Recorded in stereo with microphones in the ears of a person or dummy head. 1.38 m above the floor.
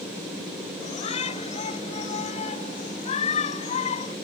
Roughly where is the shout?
Left.